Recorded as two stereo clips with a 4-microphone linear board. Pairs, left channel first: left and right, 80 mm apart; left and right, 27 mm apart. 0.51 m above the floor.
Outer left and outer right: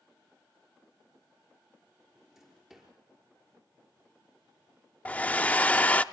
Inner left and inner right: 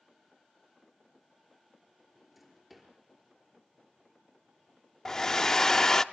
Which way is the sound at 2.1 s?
5° right (ahead or behind).